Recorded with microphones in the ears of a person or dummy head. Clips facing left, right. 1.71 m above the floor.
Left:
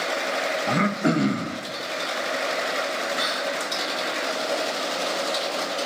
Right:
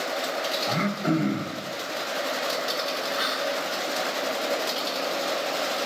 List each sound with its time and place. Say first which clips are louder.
0.7 s throat clearing: left 3 dB; 60° left (ahead or behind), 0.6 m
3.2 s whispering: even; 25° left (ahead or behind), 3.5 m